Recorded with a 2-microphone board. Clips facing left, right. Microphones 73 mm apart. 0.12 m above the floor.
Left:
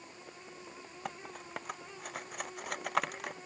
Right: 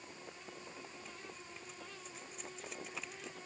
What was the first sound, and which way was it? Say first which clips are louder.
Cutlery clinking: left 7 dB; 65° left (ahead or behind).